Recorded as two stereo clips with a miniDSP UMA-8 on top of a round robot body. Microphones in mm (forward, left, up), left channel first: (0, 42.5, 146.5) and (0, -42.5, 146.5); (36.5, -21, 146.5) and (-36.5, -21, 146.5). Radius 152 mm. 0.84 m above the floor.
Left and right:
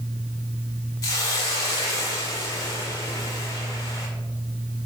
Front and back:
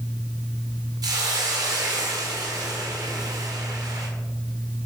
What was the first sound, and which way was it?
A hiss, 145° left.